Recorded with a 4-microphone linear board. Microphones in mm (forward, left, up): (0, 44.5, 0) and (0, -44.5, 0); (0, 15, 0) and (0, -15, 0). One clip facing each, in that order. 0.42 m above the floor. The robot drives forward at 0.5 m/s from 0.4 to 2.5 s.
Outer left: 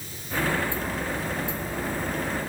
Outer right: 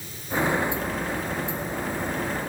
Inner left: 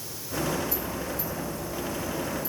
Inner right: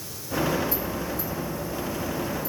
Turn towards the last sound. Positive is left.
No sound to turn to.